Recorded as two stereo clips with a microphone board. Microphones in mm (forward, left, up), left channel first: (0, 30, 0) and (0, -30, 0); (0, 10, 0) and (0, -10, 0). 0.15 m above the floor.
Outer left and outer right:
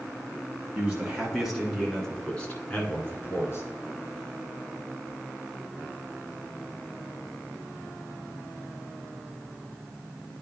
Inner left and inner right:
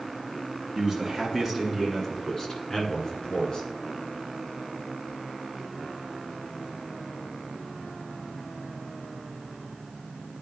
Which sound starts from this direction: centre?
A man speaking, at 0.8 s.